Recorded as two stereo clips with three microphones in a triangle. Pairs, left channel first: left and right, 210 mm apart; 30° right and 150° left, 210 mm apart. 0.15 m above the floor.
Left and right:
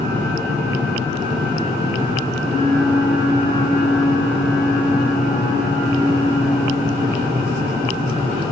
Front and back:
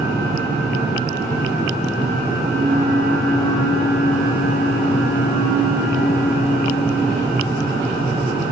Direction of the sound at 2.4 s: 170° left.